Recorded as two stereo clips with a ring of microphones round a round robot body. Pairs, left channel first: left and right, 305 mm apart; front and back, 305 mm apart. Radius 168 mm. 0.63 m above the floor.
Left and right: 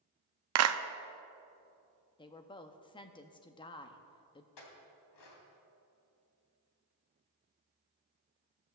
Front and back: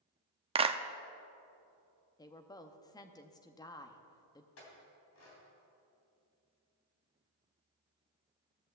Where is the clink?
50° left, 2.5 m.